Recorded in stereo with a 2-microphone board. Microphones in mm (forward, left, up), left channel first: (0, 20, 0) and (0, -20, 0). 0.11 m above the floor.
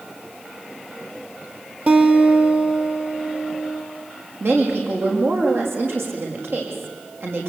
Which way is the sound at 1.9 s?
40° right (ahead or behind).